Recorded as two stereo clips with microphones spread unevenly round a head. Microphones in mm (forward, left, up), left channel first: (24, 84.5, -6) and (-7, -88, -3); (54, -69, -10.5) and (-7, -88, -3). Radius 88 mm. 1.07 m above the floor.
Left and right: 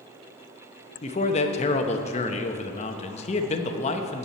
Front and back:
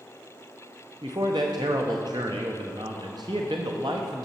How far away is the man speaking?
About 0.9 m.